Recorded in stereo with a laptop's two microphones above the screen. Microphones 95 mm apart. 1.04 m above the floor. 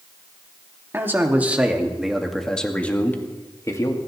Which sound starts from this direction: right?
A man speaking, at 0.9 s.